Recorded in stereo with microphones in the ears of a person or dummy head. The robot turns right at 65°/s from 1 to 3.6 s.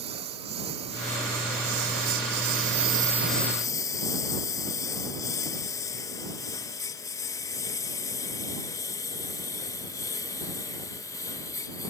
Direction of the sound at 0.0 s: 25° right (ahead or behind).